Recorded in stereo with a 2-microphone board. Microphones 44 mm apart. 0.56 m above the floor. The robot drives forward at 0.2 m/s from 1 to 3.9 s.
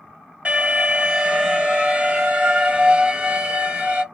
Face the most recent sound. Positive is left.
turn(degrees=-30)  # may be behind; listen again after turning